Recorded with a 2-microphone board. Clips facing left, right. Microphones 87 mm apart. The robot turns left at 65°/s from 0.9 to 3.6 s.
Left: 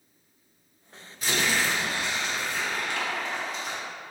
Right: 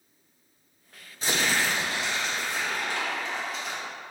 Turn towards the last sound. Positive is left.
turn(degrees=175)